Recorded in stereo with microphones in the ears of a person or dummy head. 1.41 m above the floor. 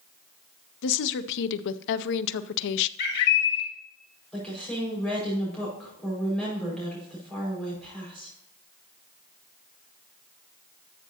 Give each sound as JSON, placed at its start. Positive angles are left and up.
{"t": 0.8, "sound": "a woman speaking", "side_deg": 65, "distance_m": 0.5}
{"t": 3.0, "sound": "a bird", "side_deg": 55, "distance_m": 2.0}
{"t": 4.3, "sound": "a woman speaking", "side_deg": 10, "distance_m": 5.0}